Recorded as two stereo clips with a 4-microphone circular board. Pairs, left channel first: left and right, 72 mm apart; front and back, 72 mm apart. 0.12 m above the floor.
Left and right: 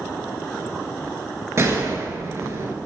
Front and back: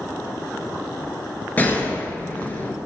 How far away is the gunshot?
About 1.7 m.